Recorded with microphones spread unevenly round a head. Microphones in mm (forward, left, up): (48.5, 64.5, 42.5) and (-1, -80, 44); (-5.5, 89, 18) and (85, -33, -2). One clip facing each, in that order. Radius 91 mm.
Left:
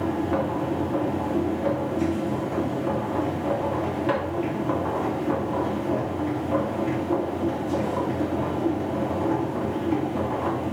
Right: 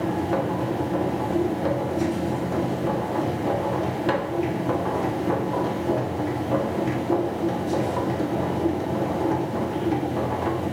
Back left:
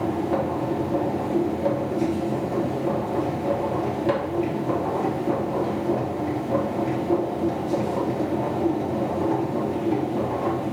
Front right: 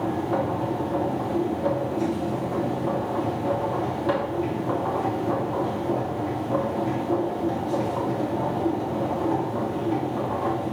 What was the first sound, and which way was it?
A machine running, 155° right.